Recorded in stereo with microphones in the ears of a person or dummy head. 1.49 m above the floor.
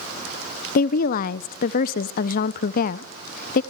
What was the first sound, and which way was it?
A woman speaking, 55° left (ahead or behind).